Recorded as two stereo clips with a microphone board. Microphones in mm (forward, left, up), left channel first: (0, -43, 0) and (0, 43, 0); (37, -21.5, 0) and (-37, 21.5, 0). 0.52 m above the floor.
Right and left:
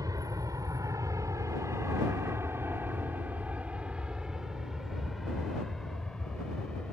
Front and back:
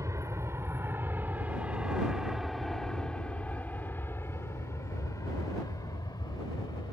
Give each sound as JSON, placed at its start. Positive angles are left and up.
{"t": 0.0, "sound": "an aircraft", "azimuth_deg": 110}